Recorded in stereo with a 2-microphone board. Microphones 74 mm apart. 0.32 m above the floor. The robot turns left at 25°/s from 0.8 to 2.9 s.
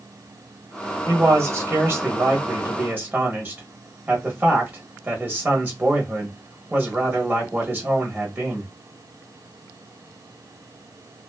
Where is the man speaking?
90° right, 1.1 m; by 8.7 s 135° right, 1.1 m.